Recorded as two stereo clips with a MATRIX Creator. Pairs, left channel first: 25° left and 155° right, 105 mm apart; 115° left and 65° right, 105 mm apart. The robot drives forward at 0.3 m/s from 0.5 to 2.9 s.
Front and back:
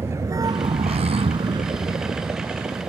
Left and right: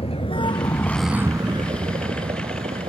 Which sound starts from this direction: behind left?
A vehicle, at 0.0 s.